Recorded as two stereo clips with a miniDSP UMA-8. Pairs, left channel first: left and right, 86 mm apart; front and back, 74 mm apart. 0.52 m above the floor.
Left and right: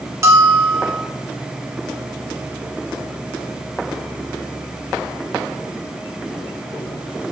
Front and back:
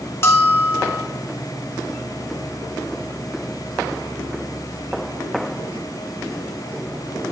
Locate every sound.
0.2 s a bell: 45° right, 1.1 m